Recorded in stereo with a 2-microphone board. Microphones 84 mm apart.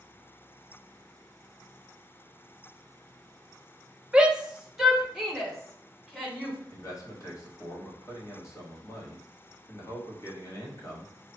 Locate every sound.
4.1 s a shout: 15° right (ahead or behind), 0.6 m; by 6.6 s 5° left (ahead or behind), 2 m
6.7 s a man speaking: 40° left (ahead or behind), 1.2 m